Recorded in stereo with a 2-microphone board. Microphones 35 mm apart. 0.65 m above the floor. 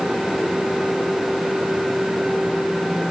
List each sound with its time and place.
Only background noise.